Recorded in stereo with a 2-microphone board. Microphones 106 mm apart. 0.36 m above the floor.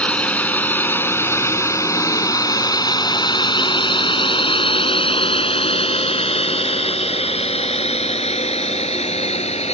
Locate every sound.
0.0 s a drone: 10° left (ahead or behind); by 9.7 s 80° left